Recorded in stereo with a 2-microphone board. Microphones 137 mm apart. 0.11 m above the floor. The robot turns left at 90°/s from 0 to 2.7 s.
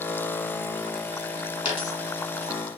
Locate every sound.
1.6 s a dropped coin: 15° right (ahead or behind), 1.9 m; by 2.5 s 55° left (ahead or behind), 1.9 m